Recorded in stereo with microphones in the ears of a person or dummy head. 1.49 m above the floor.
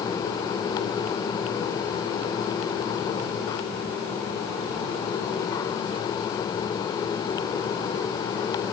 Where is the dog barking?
No dog barking in this recording.